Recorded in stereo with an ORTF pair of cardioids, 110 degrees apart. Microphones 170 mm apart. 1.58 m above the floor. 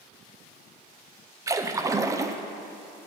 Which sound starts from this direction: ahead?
A splash, at 1.5 s.